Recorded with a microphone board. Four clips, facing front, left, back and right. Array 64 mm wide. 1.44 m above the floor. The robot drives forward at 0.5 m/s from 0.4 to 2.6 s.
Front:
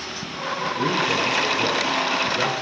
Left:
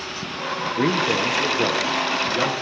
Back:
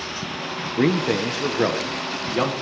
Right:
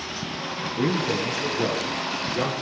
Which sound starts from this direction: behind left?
A man speaking, at 0.8 s.